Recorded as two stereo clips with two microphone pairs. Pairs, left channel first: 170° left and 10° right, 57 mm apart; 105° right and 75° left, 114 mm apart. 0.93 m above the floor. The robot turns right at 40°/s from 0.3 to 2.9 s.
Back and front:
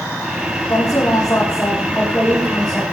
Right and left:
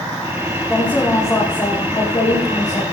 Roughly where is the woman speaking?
Behind.